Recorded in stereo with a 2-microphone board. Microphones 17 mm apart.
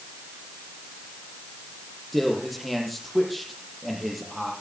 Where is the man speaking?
5° left (ahead or behind), 7 m.